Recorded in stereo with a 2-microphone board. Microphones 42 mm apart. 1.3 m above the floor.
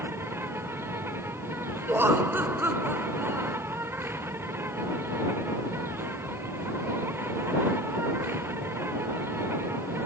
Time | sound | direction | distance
0.0 | an insect | 80° right | ?
1.9 | laughter | 70° right (ahead or behind) | ?